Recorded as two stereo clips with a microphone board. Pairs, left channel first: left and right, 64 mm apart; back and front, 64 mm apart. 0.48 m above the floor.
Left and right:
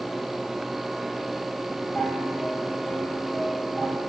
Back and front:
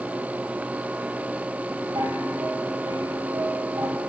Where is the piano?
5° left, 5.5 m.